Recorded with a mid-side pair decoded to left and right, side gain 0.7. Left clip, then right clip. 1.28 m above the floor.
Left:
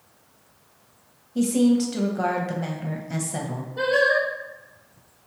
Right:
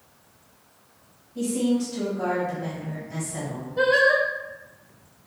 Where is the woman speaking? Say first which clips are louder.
Left 4 dB; 45° left, 0.8 m.